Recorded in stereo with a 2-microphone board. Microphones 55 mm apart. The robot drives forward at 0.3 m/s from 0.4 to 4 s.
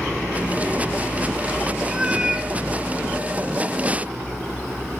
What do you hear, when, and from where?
1.9 s a cat meowing: 15° right (ahead or behind), 1.1 m